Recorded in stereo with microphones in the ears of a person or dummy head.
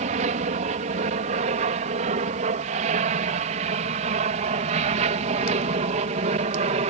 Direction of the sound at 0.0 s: 40° right (ahead or behind).